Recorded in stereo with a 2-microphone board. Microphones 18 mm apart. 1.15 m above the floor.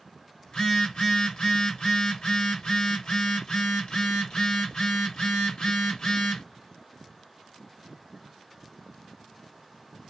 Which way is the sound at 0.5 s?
60° left (ahead or behind).